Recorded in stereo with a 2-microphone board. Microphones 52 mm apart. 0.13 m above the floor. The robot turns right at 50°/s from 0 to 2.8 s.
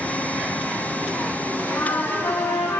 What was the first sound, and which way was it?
A trumpet, 75° left.